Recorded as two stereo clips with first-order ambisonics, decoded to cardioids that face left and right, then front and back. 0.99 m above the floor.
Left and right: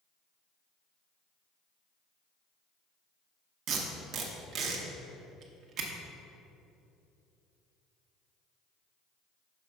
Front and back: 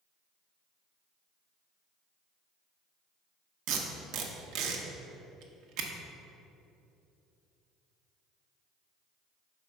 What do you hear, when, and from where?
3.7 s tape being pulled: 145° right, 0.9 m